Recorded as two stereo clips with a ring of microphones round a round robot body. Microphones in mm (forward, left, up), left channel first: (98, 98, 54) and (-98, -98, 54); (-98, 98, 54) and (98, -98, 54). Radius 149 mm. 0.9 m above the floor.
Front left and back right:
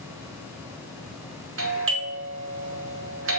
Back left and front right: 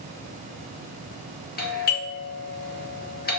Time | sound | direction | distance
1.6 | a doorbell | 175° right | 2 m